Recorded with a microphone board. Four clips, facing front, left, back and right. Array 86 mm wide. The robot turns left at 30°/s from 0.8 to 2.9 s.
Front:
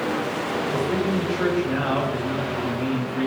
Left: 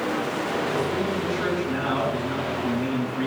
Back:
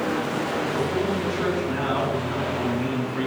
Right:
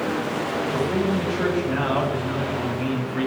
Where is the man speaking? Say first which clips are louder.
Right 2 dB, front 3 dB; 25° right, 5.5 m; by 3.3 s 90° right, 5.5 m.